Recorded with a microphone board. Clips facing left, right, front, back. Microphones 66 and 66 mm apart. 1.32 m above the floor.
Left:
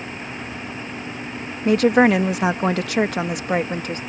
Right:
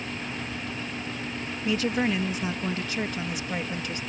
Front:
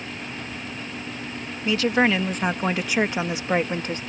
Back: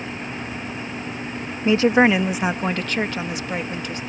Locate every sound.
1.6 s a woman speaking: 120° left; by 4.0 s 45° left